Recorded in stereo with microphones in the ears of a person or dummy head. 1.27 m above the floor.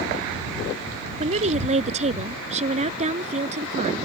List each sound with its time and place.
1.2 s a woman speaking: 40° right (ahead or behind)